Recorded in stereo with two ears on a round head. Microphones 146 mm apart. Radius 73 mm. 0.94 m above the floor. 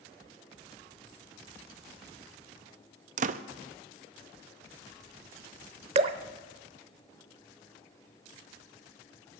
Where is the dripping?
40° right (ahead or behind), 0.8 m.